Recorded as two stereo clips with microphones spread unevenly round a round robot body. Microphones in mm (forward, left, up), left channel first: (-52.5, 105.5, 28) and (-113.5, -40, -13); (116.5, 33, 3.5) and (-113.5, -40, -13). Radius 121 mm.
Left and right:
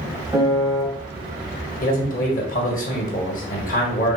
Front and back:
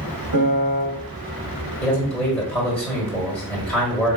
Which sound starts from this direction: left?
A man speaking, at 1.8 s.